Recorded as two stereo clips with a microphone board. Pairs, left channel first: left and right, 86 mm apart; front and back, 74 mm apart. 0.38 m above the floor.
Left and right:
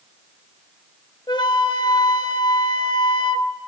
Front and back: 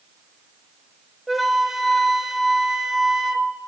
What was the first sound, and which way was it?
A flute, 90° left.